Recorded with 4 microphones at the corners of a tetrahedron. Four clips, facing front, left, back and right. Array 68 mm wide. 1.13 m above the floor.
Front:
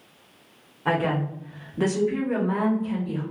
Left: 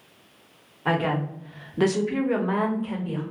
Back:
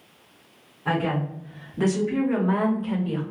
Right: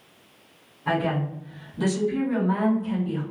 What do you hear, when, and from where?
0.8 s a woman speaking: 55° left, 1.3 m; by 3.2 s 150° left, 1.1 m